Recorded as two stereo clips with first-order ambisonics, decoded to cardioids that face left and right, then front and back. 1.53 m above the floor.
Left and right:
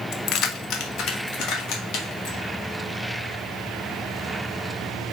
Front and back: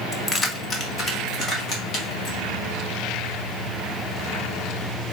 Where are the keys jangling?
75° left, 0.7 m; by 2.4 s 60° left, 3 m.